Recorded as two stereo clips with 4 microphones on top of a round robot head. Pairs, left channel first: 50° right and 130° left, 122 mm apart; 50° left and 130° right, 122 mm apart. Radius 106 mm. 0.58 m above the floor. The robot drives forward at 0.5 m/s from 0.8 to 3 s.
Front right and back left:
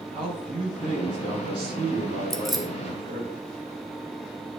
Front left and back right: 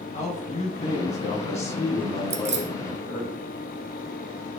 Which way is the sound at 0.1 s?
80° left.